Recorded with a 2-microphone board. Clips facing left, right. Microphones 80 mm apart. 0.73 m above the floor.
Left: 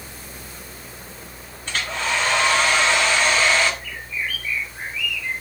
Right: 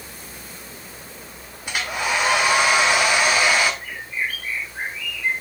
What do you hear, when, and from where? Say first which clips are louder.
1.7 s a hair dryer: right 1 dB; 10° right (ahead or behind), 1.4 m
3.8 s a bird: right 1 dB; 35° right (ahead or behind), 2.5 m